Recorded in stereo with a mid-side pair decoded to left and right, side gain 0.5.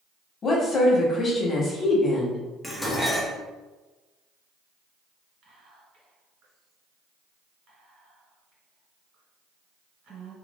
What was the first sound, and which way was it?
A woman speaking, 40° left.